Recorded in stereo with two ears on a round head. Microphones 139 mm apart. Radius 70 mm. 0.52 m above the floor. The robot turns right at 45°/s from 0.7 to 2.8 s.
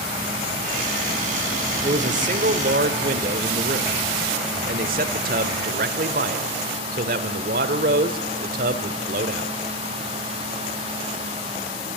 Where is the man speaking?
130° right, 1.7 m; by 9.5 s 85° right, 1.7 m.